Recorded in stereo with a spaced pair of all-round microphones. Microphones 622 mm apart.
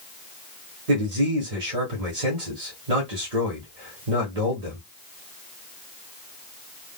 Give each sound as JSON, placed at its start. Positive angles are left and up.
{"t": 0.9, "sound": "a man speaking", "side_deg": -85, "distance_m": 1.3}